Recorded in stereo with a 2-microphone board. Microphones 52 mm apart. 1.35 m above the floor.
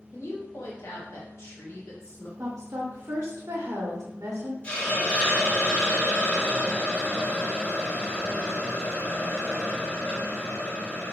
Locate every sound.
0.1 s a woman speaking: 65° left (ahead or behind), 1.3 m
2.4 s a woman speaking: 70° right (ahead or behind), 1.1 m
4.6 s a hiss: 25° left (ahead or behind), 1.2 m